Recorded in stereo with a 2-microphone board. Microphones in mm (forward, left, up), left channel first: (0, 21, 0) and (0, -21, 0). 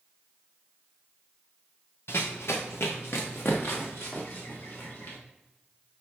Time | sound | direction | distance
2.1 | running footsteps | 75° left (ahead or behind) | 1.1 m